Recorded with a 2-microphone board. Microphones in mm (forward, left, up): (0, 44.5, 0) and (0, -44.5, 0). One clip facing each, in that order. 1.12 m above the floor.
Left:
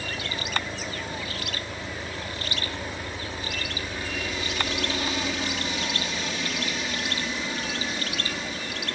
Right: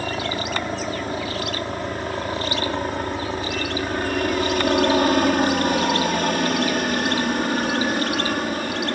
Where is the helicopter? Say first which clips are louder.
Right 8 dB; 55° right (ahead or behind); by 9.0 s 60° right (ahead or behind).